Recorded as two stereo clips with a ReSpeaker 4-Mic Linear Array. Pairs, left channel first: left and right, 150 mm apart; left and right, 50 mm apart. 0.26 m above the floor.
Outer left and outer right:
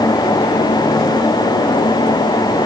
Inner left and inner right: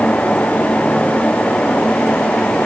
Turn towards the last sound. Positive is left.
No sound to turn to.